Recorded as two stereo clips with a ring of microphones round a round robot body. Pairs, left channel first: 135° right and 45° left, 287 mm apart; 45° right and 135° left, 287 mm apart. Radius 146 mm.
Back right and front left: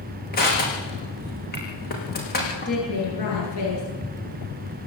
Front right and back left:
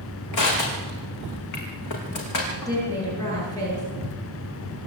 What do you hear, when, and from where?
0.3 s crushing: 75° right, 6.5 m
2.6 s a woman speaking: 125° right, 9.5 m